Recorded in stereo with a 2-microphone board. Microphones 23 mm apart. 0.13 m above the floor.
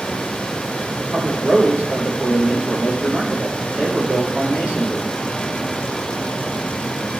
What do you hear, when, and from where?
1.0 s a man speaking: 70° right (ahead or behind), 5.5 m